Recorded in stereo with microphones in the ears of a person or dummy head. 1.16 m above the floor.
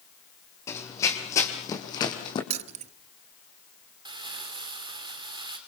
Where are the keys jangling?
30° right (ahead or behind), 0.8 m.